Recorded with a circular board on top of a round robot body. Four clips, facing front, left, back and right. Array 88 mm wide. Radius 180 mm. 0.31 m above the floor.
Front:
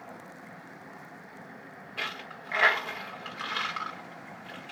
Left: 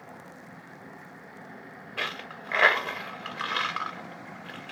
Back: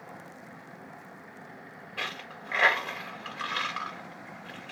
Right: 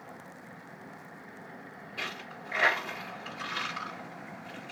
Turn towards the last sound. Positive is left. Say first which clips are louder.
# left 5 dB, even
turn(degrees=90)